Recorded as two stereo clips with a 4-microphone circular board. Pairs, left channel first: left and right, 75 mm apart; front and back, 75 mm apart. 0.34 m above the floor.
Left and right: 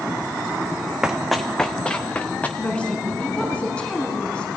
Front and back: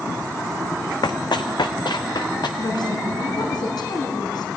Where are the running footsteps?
10° right, 1.0 m; by 2.5 s 20° left, 2.5 m.